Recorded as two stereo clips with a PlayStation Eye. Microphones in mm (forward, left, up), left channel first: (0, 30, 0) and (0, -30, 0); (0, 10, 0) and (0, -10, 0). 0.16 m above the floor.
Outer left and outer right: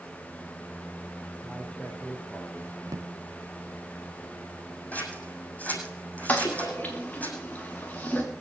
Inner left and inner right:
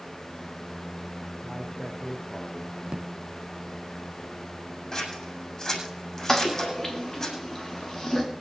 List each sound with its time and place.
1.4 s a man speaking: 5° left (ahead or behind), 5.5 m; by 2.8 s 10° left (ahead or behind), 5 m
2.9 s a drawer: 60° right (ahead or behind), 0.6 m
4.9 s scissors: 25° left (ahead or behind), 6.5 m
6.3 s a toilet flushing: 25° left (ahead or behind), 3.5 m